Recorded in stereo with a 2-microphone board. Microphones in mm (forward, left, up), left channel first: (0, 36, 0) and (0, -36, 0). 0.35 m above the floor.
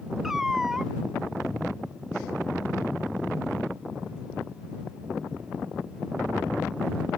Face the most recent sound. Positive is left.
turn(degrees=-5)  # may be behind; listen again after turning